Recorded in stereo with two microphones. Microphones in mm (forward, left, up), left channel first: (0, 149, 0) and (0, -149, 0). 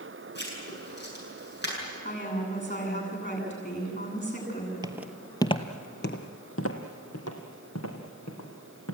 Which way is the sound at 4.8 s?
15° right (ahead or behind).